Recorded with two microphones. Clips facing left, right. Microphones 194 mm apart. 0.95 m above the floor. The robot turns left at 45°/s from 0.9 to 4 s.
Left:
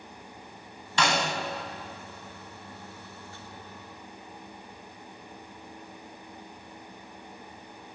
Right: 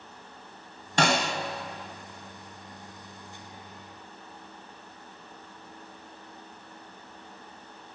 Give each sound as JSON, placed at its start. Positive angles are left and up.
{"t": 1.0, "sound": "a snare drum", "side_deg": -50, "distance_m": 1.1}